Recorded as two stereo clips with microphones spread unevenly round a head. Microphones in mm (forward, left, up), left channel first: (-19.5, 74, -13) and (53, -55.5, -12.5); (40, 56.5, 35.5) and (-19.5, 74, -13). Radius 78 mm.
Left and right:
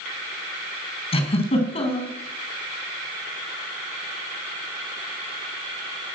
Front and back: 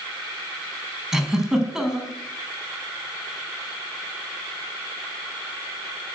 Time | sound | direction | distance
1.1 | a giggle | 70° left | 4.5 m